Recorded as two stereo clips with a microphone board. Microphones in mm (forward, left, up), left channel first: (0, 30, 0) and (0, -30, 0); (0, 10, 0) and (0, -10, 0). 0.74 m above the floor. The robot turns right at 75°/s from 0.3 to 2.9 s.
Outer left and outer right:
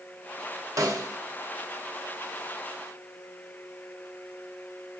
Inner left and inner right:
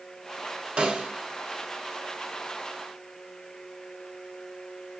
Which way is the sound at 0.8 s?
70° right (ahead or behind).